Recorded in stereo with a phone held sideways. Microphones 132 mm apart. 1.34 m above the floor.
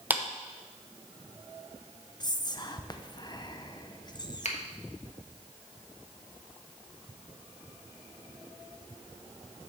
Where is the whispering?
35° left (ahead or behind), 0.9 m.